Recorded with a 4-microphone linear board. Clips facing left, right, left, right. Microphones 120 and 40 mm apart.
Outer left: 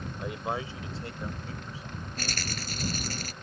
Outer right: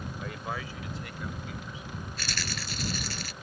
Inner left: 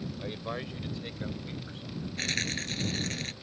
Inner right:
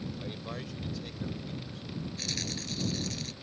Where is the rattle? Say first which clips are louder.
Outer left 3 dB, inner left 9 dB; 45° left (ahead or behind).